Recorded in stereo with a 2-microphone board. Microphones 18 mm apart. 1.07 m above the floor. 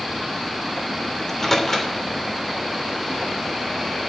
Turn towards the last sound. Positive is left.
turn(degrees=25)  # may be behind; listen again after turning